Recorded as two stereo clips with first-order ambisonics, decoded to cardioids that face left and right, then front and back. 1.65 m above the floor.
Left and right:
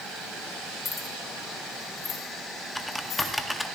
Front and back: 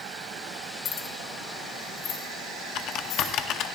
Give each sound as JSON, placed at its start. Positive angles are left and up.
{"t": 0.8, "sound": "keys jangling", "azimuth_deg": 25, "distance_m": 1.1}
{"t": 2.8, "sound": "typing on a keyboard", "azimuth_deg": 5, "distance_m": 0.6}